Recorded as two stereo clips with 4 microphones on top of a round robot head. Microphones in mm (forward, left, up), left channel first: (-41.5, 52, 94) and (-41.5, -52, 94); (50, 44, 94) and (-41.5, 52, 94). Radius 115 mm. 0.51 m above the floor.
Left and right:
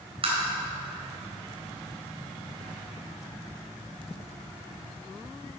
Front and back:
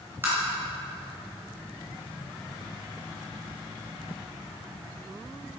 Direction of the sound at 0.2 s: 115° right.